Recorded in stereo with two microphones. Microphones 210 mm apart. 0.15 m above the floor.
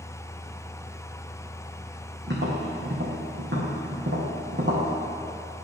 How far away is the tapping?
About 2 m.